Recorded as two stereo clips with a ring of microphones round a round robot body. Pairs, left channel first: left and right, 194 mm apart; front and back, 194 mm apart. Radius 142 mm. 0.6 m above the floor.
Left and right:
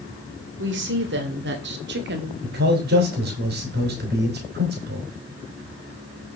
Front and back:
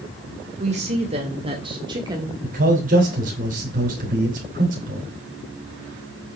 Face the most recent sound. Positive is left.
turn(degrees=-130)